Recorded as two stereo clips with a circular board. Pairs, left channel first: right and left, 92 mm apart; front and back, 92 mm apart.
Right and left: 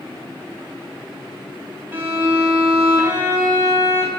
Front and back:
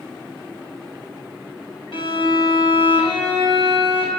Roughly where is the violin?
Ahead.